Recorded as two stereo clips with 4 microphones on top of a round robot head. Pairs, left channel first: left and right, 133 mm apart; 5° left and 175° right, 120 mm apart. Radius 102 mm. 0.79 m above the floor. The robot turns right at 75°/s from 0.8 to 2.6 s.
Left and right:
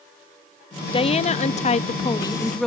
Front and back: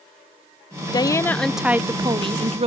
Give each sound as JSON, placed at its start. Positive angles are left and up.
{"t": 0.9, "sound": "a woman speaking", "azimuth_deg": 50}